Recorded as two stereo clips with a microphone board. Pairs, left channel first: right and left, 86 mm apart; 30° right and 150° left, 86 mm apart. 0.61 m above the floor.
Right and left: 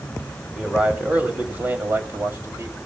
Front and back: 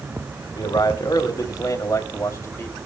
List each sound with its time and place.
0.6 s a man speaking: 10° left, 3 m; by 2.8 s 35° left, 2.5 m